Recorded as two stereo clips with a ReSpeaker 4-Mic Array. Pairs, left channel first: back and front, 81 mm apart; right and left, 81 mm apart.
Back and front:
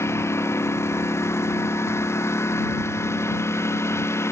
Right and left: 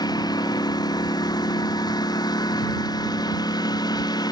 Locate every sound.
0.0 s a lawn mower: 125° right